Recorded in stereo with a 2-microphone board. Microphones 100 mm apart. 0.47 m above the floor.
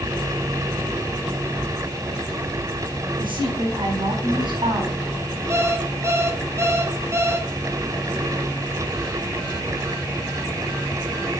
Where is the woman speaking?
55° right (ahead or behind), 4 m.